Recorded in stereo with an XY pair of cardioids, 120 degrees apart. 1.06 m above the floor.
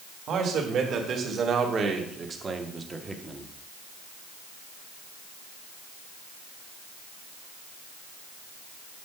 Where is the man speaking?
55° right, 3 m; by 3.5 s 5° right, 1.6 m.